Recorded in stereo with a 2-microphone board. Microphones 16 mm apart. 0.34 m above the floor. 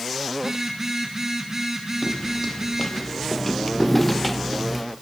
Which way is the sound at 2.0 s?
25° left (ahead or behind).